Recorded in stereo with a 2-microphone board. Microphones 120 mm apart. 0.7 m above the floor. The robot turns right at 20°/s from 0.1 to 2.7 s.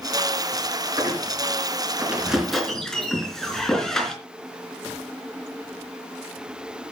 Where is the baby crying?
I don't hear a baby crying.